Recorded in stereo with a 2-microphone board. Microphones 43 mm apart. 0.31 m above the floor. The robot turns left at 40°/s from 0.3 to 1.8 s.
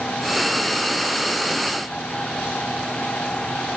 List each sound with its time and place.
Only background noise.